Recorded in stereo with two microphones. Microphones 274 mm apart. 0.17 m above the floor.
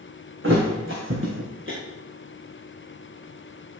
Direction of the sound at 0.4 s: 50° right (ahead or behind).